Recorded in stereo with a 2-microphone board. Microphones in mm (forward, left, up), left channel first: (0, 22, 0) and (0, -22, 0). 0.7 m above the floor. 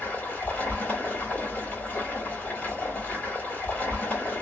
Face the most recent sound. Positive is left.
turn(degrees=35)  # may be behind; listen again after turning